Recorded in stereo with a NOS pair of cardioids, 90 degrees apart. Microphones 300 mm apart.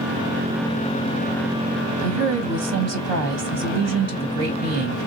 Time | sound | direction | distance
2.0 | a woman speaking | 60° right | 1.3 m